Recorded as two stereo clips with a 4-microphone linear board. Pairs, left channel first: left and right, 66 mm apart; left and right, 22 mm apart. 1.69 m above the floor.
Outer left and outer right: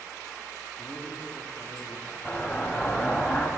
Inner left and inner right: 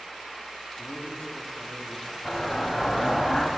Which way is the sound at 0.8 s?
60° left (ahead or behind).